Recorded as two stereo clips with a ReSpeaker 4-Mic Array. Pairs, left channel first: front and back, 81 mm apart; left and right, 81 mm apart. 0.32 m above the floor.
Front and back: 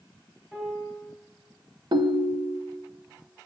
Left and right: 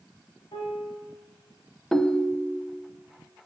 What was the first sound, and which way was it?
A piano, 95° left.